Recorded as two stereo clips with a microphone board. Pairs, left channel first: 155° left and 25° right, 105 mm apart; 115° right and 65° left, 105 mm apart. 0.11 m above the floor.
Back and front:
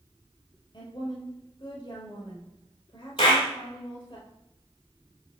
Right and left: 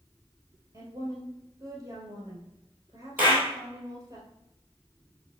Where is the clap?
140° left, 3 m.